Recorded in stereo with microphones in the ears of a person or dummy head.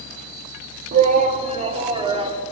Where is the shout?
45° right (ahead or behind), 2.0 m; by 2.4 s 25° right (ahead or behind), 3 m.